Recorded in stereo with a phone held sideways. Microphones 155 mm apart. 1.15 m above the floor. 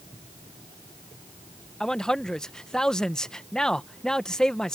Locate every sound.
1.8 s a man speaking: 5° left (ahead or behind)